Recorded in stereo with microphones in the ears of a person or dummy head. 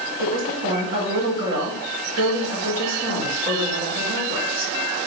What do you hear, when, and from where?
0.2 s a woman speaking: 60° right (ahead or behind), 1.7 m